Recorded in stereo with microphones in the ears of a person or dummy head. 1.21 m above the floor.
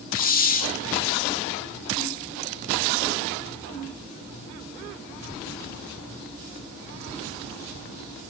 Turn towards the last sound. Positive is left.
turn(degrees=40)  # may be behind; listen again after turning